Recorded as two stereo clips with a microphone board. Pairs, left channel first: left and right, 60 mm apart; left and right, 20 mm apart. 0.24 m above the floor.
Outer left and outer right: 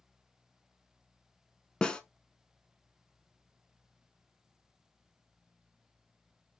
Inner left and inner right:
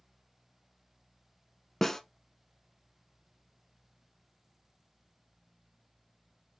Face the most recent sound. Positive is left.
turn(degrees=15)  # may be behind; listen again after turning